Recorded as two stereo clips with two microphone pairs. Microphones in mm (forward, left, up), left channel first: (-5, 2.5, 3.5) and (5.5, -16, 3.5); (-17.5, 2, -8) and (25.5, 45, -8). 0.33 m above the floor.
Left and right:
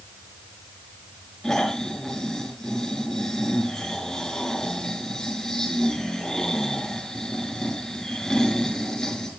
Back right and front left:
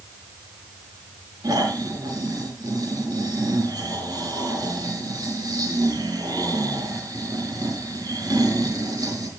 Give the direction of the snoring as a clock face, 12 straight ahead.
10 o'clock.